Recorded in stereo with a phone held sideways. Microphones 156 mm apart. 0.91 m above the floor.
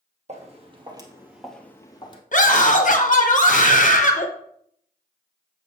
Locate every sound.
0.3 s footsteps: 45° right (ahead or behind), 2 m; by 2.2 s 35° left (ahead or behind), 1.7 m
2.3 s a scream: 55° left (ahead or behind), 1.3 m